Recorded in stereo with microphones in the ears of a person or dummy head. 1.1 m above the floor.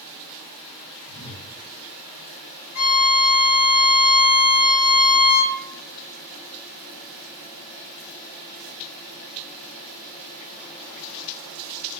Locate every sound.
1.1 s a whoosh: 50° left (ahead or behind), 1.5 m
2.8 s a violin: 45° left (ahead or behind), 0.6 m